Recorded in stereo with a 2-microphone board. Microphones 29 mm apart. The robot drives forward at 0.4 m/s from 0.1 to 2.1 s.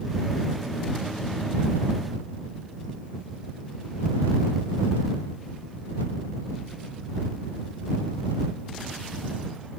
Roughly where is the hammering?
No hammering in this recording.